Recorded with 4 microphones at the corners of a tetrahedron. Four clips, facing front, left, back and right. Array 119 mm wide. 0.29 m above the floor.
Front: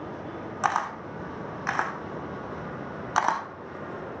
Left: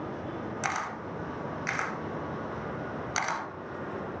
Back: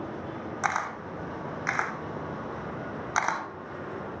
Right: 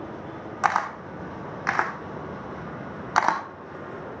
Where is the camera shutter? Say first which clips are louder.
Right 12 dB, front 3 dB; 70° right, 0.5 m.